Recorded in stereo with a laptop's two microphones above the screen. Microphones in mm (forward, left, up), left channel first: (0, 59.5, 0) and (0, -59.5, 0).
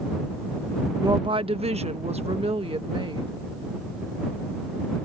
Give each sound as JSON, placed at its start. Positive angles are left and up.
{"t": 1.0, "sound": "a woman speaking", "side_deg": -35}